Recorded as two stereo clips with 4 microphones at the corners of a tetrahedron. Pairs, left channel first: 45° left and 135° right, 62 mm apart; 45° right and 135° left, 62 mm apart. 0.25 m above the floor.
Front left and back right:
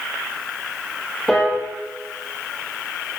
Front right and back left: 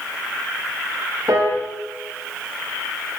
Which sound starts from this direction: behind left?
A piano, at 1.3 s.